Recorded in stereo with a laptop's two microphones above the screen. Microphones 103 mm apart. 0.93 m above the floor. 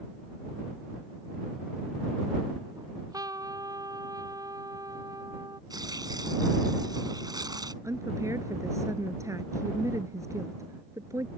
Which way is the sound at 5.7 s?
40° right (ahead or behind).